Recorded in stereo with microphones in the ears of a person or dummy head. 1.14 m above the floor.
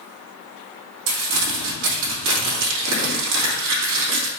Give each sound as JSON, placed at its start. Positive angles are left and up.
{"t": 1.1, "sound": "crumpling", "side_deg": -65, "distance_m": 2.0}